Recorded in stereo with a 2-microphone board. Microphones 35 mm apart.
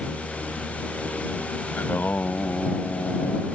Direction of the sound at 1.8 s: 65° left (ahead or behind).